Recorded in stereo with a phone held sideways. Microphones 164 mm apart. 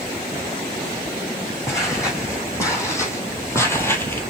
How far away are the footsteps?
About 3 m.